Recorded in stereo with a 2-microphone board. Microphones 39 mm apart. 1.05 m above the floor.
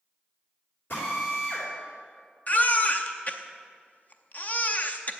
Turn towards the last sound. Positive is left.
turn(degrees=40)  # may be behind; listen again after turning